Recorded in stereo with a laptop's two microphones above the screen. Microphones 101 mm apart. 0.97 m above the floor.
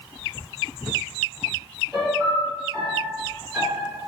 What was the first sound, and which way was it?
A piano, centre (ahead or behind).